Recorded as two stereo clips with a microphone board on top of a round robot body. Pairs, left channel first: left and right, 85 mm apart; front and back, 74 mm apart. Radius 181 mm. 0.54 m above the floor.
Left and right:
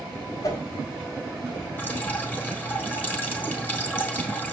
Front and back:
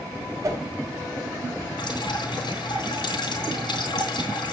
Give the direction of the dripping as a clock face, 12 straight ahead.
11 o'clock.